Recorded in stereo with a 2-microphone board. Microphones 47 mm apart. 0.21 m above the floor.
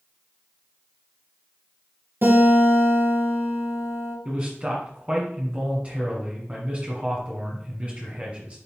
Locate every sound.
2.2 s a guitar: 55° right (ahead or behind), 4 m
4.2 s a man speaking: 30° right (ahead or behind), 1.8 m